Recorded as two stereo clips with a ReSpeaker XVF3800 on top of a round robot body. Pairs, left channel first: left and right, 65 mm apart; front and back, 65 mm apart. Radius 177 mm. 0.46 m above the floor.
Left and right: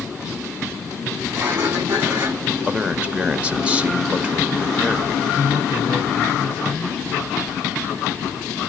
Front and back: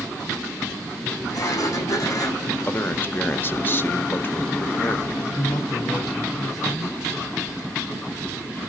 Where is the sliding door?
40° right, 6.5 m.